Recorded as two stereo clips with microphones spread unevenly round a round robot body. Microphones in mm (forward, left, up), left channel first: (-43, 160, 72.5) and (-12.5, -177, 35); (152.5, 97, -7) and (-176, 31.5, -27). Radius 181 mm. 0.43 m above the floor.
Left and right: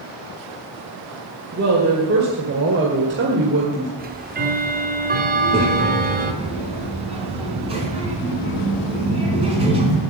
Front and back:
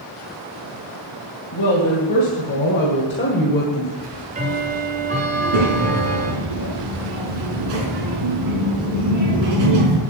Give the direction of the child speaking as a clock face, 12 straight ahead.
5 o'clock.